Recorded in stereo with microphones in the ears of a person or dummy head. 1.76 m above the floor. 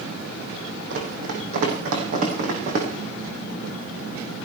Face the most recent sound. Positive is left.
turn(degrees=-40)  # may be behind; listen again after turning